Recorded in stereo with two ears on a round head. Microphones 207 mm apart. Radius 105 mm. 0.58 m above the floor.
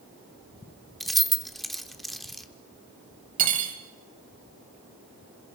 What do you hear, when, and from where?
1.0 s keys jangling: centre (ahead or behind), 0.9 m
3.4 s cutlery clinking: 35° right (ahead or behind), 2 m